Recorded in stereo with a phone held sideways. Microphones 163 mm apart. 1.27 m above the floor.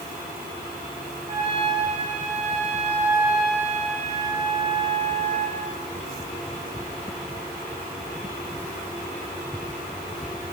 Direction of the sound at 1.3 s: 50° right (ahead or behind).